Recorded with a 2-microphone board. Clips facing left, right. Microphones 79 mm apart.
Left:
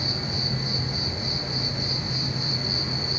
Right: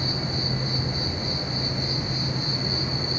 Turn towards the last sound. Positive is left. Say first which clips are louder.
# right 2 dB
turn(degrees=-40)  # may be behind; listen again after turning